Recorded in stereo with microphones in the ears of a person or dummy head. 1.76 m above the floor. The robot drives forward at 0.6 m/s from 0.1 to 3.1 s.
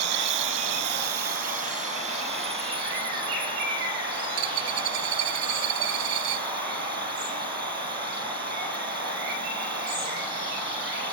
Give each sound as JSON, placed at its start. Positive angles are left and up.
{"t": 0.0, "sound": "an insect", "side_deg": -65}
{"t": 4.4, "sound": "a dropped coin", "side_deg": -75}